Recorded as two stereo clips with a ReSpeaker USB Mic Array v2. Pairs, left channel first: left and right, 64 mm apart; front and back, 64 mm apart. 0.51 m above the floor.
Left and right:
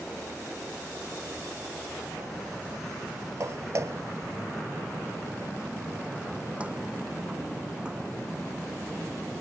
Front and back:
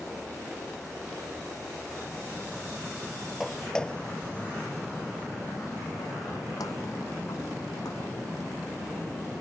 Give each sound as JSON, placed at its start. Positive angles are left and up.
{"t": 3.4, "sound": "footsteps", "azimuth_deg": -95}